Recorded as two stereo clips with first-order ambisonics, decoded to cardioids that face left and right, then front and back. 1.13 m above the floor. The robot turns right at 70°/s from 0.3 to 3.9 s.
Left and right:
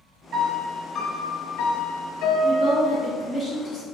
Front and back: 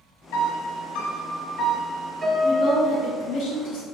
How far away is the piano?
About 0.8 m.